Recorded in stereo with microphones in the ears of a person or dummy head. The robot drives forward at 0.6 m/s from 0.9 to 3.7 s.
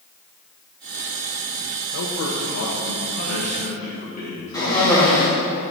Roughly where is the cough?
Centre.